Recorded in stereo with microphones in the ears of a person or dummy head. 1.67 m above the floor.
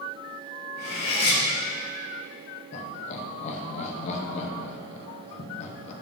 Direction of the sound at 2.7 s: 40° left (ahead or behind).